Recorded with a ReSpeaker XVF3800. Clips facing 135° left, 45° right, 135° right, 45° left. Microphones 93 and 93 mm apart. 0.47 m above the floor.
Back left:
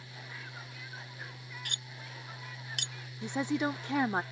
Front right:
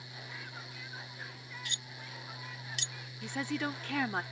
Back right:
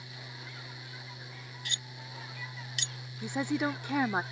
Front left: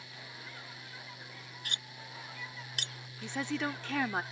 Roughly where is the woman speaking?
Behind.